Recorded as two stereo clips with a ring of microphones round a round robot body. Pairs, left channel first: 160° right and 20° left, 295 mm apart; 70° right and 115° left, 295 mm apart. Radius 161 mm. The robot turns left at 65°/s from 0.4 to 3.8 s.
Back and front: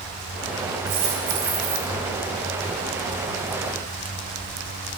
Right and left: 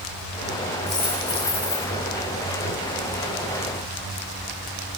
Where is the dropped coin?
25° left, 5.5 m; by 1.9 s 45° right, 5.5 m.